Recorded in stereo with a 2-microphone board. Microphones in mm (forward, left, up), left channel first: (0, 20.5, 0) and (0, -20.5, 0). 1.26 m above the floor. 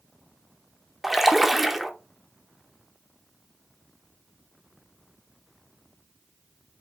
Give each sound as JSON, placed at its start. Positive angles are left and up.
{"t": 1.0, "sound": "a splash", "side_deg": -5, "distance_m": 0.6}